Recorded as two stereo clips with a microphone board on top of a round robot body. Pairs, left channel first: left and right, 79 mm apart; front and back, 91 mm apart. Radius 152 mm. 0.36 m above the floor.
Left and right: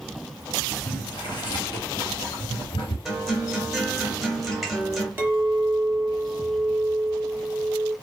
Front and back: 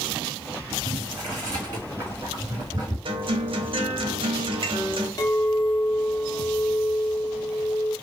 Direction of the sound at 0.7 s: 125° left.